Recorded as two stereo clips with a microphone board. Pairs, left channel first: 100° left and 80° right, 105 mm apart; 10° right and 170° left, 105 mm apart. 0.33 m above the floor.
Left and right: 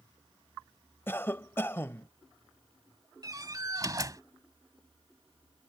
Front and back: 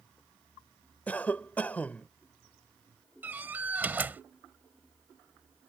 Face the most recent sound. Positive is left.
turn(degrees=-120)